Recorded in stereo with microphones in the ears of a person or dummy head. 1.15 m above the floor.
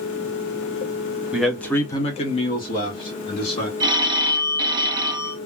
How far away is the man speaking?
About 0.7 m.